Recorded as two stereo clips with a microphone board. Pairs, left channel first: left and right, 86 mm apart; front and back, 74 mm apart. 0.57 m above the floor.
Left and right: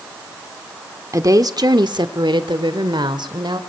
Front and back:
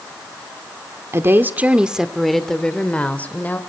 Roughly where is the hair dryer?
No hair dryer in this recording.